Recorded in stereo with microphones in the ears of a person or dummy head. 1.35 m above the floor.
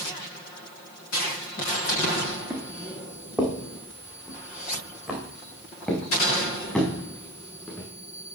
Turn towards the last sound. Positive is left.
turn(degrees=10)  # may be behind; listen again after turning